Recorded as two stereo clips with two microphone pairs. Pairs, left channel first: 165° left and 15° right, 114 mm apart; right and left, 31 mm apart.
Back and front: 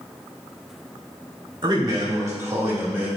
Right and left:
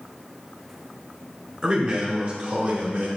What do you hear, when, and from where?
1.6 s a man speaking: 35° left, 1.8 m; by 3.1 s 60° left, 1.8 m